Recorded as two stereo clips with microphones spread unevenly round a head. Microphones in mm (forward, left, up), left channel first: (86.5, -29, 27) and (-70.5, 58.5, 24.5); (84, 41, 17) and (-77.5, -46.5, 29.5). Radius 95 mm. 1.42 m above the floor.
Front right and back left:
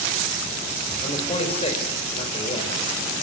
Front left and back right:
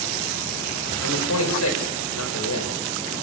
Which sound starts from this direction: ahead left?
A man speaking, at 1.0 s.